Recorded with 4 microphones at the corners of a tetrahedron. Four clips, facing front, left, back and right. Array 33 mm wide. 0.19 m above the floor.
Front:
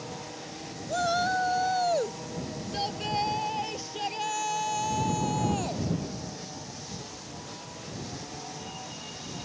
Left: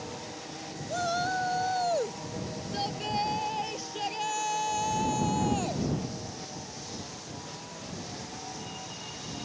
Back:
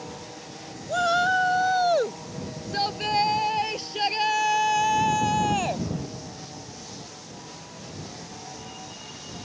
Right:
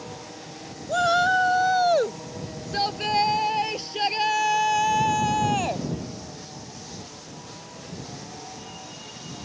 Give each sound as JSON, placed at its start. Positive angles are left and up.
{"t": 0.9, "sound": "a shout", "azimuth_deg": -125}